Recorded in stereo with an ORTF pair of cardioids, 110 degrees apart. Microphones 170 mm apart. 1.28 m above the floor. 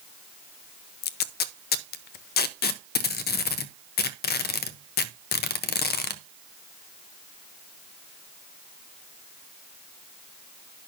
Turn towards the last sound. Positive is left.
turn(degrees=65)